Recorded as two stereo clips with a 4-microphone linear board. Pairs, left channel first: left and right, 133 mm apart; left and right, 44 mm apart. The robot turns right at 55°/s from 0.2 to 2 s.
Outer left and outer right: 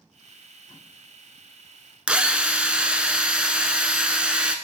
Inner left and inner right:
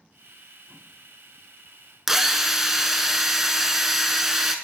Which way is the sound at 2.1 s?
10° right (ahead or behind).